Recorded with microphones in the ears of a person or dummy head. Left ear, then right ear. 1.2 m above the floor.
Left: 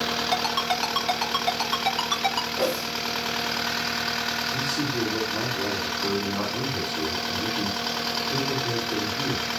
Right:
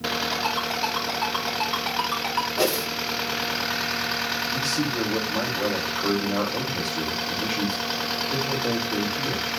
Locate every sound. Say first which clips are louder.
0.3 s a ringtone: left 1 dB; 30° left (ahead or behind), 3.5 m
2.6 s a whoosh: right 3 dB; 65° right (ahead or behind), 2.5 m
4.5 s a man speaking: right 1 dB; 90° right, 3.5 m